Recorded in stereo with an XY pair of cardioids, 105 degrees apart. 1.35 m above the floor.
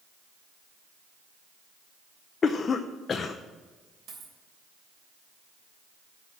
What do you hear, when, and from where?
2.4 s a cough: 45° left, 0.6 m
4.1 s a dropped coin: 65° right, 3 m